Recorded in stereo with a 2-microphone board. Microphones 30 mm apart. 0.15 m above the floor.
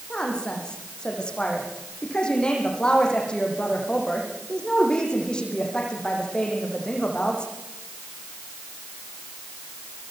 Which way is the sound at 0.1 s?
25° left (ahead or behind).